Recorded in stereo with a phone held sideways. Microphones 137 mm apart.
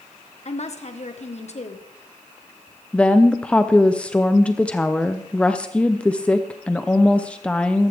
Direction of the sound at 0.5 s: 55° left (ahead or behind).